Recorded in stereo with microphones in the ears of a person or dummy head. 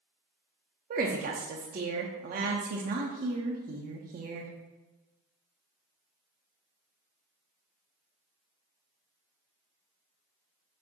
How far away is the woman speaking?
About 0.5 m.